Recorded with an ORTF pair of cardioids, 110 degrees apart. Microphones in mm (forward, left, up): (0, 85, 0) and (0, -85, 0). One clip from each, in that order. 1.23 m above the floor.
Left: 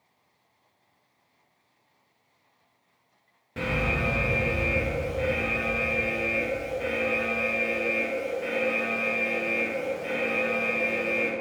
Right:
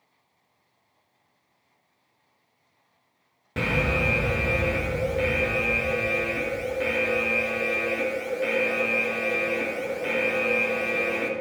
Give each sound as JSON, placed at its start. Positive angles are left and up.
{"t": 3.6, "sound": "an alarm", "azimuth_deg": -40, "distance_m": 1.5}